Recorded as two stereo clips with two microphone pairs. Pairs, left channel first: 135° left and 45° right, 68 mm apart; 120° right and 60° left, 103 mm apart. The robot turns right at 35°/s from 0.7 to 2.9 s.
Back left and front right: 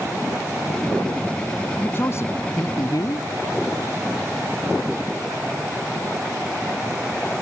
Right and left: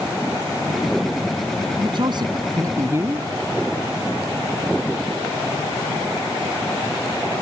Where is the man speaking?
80° left; by 3.3 s 120° left.